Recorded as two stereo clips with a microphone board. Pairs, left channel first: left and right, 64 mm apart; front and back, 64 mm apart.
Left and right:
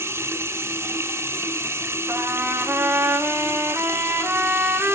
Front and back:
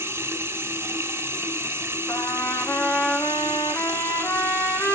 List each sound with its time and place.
0.0 s running water: 130° right, 1.7 m
2.1 s a trumpet: 45° right, 3.5 m